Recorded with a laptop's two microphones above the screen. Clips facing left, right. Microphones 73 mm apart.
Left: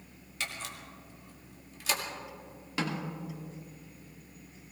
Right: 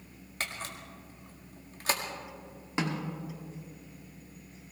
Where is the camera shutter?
40° right (ahead or behind), 1.6 m.